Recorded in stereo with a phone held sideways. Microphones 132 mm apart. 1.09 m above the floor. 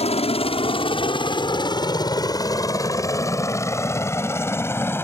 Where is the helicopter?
50° left (ahead or behind); by 5.0 s 15° left (ahead or behind).